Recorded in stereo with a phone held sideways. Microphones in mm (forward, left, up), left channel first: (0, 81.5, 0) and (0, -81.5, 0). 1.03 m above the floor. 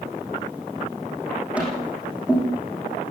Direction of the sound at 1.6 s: 10° right (ahead or behind).